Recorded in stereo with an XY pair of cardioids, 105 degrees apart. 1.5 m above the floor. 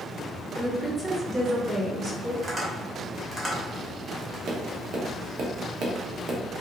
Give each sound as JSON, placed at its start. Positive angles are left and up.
{"t": 0.6, "sound": "a woman speaking", "azimuth_deg": -20, "distance_m": 1.2}
{"t": 2.4, "sound": "tapping", "azimuth_deg": -25, "distance_m": 1.3}
{"t": 4.5, "sound": "tapping", "azimuth_deg": -65, "distance_m": 0.8}